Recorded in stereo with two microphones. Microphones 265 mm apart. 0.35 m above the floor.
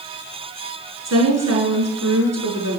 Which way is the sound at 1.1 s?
75° right (ahead or behind).